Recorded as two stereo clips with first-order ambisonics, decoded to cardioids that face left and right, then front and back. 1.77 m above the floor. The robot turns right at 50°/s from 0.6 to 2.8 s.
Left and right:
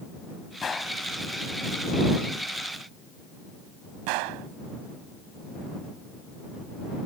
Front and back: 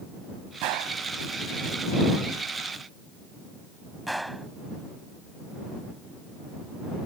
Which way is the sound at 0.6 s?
160° left.